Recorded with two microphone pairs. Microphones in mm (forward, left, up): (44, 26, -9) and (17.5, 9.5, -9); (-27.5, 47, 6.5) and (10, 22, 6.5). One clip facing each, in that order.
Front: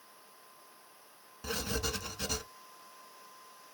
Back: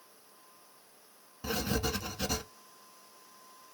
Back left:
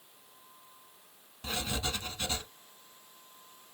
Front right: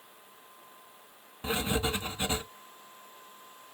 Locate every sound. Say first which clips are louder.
1.4 s writing: back 3 dB, front right 5 dB; 60° right, 0.5 m